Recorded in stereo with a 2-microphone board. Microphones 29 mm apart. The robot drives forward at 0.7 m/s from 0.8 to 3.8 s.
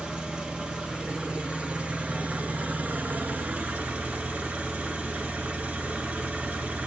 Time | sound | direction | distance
0.0 | an engine running | 35° right (ahead or behind) | 2.0 m